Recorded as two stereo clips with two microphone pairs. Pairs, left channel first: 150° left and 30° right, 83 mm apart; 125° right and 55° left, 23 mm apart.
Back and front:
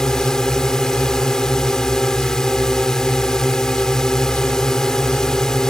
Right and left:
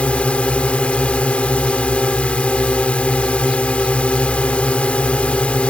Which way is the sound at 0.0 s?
130° right.